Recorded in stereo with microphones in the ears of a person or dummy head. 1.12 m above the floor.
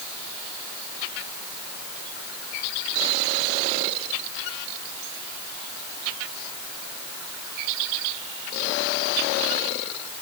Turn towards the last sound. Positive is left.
No sound to turn to.